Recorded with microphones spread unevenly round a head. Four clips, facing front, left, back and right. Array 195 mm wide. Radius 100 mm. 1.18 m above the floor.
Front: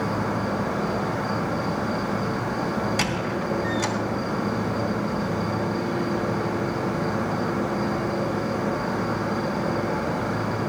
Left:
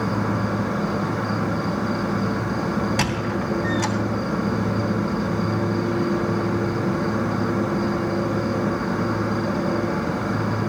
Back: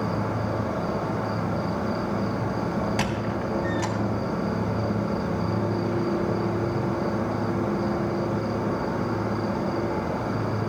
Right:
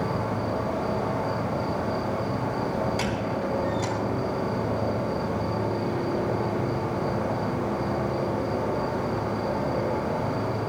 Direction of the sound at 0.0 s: 90° left.